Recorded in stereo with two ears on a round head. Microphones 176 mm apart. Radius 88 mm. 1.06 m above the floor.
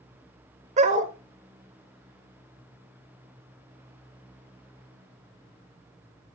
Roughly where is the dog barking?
Right.